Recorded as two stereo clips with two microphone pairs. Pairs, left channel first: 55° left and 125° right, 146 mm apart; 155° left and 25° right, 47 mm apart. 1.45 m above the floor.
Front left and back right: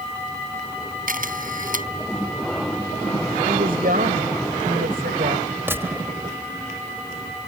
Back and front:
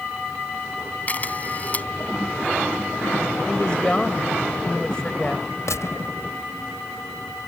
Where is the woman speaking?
135° right.